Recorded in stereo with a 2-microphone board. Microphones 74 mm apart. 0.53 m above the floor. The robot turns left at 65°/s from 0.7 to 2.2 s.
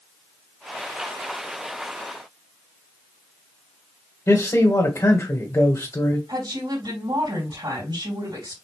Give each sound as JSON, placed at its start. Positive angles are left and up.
{"t": 4.3, "sound": "a man speaking", "side_deg": 40, "distance_m": 1.8}
{"t": 6.3, "sound": "a woman speaking", "side_deg": -65, "distance_m": 3.0}